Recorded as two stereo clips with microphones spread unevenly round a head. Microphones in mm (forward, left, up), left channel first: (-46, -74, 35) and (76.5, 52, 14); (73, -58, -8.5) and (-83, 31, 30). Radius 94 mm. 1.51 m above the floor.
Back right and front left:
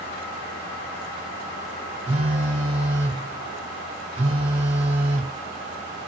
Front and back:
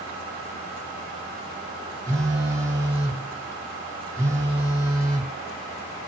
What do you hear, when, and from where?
2.1 s a phone buzzing: 100° left, 1.0 m